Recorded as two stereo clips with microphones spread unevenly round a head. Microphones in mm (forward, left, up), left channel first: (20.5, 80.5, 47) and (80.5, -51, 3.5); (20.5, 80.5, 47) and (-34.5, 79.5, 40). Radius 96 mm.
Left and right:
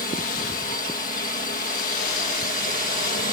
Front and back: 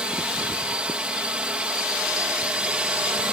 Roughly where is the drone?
Behind left.